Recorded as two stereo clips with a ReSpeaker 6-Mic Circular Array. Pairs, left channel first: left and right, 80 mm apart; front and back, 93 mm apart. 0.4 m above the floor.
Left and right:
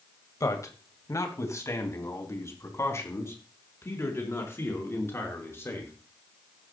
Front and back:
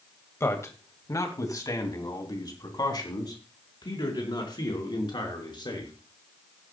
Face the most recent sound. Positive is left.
turn(degrees=35)